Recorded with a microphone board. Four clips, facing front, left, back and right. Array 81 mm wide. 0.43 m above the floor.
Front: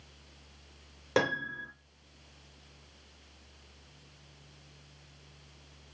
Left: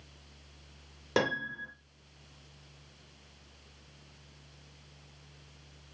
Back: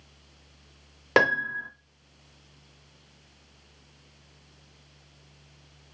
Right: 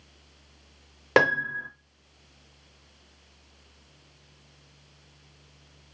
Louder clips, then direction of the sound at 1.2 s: Right 8 dB, back 7 dB; 125° right.